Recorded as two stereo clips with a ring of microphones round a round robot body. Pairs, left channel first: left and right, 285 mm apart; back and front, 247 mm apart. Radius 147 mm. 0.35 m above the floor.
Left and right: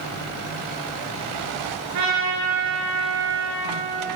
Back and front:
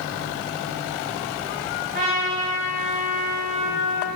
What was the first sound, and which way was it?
A trumpet, 60° right.